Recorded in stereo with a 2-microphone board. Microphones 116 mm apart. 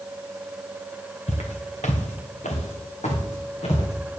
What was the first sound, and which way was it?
Footsteps, 65° left (ahead or behind).